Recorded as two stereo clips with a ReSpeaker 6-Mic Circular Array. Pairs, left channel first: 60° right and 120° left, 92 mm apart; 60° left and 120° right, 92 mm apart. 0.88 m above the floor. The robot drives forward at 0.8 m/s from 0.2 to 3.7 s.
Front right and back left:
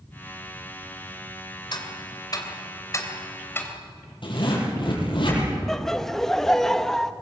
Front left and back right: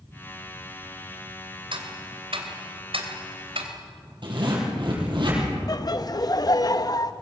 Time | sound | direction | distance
1.7 | ticking | 95° right | 2.5 m
4.2 | a zipper | 85° right | 7 m
5.7 | laughter | 25° left | 0.9 m